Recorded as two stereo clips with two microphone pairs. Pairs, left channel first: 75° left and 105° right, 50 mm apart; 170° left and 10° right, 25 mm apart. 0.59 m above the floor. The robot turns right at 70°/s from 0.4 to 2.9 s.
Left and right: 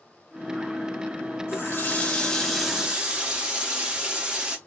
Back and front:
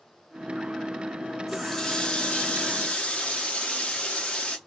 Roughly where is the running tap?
Left.